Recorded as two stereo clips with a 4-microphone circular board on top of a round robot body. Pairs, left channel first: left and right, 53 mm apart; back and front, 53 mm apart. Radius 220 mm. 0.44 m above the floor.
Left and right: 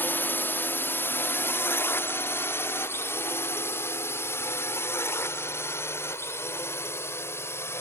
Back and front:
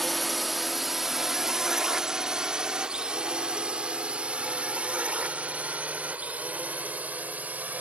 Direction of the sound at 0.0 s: 90° left.